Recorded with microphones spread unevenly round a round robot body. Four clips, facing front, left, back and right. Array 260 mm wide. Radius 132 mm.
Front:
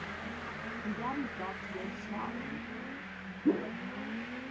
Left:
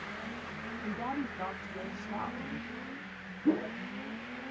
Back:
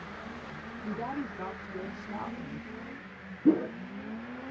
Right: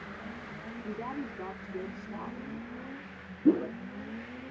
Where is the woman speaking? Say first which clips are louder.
Left 2 dB, back 2 dB; 125° left, 1.7 m.